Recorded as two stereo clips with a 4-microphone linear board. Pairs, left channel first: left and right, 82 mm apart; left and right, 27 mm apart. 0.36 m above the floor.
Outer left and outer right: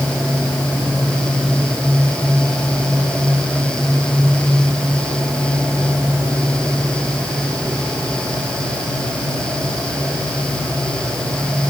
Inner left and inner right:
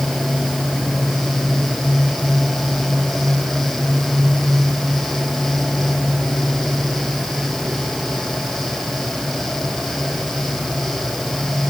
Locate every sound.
Only background noise.